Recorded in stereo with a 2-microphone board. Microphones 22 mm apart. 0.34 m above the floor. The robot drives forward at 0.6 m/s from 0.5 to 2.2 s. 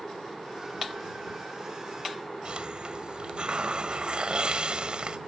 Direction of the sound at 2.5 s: 50° right (ahead or behind).